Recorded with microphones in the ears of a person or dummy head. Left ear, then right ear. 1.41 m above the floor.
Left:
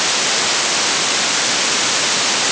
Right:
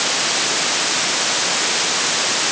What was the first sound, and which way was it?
Only background noise.